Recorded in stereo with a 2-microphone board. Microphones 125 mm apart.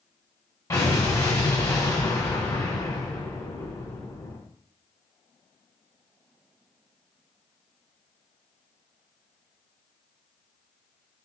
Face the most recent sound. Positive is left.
turn(degrees=25)  # may be behind; listen again after turning